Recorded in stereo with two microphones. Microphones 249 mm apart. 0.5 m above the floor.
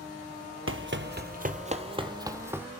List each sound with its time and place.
0.7 s running footsteps: 55° right (ahead or behind), 0.9 m; by 2.7 s 10° right (ahead or behind), 1.3 m